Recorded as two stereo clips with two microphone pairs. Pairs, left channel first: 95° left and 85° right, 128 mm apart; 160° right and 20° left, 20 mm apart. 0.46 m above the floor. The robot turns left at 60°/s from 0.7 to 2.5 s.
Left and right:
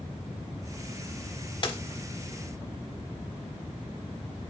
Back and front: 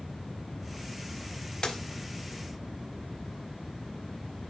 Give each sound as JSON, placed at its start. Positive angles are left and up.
{"t": 1.6, "sound": "a dropped coin", "azimuth_deg": 145, "distance_m": 0.7}